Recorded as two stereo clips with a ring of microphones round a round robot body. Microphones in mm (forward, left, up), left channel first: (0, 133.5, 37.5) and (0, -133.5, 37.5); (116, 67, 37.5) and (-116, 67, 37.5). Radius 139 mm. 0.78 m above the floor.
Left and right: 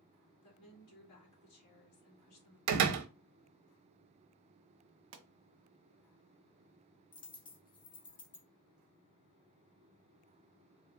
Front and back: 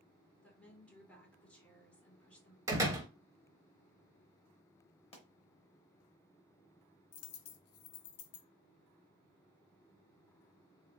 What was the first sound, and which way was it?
A woman speaking, 85° left.